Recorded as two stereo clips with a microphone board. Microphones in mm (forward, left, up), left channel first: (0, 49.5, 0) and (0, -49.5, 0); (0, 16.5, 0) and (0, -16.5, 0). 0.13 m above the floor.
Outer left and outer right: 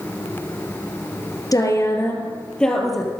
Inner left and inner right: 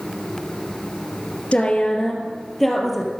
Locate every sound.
1.5 s a woman speaking: 40° left (ahead or behind), 3 m; by 3.1 s centre (ahead or behind), 3 m